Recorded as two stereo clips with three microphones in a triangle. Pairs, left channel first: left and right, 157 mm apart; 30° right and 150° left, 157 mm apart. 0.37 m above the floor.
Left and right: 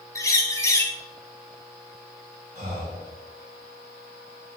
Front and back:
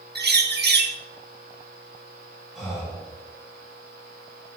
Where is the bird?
160° left, 0.5 m.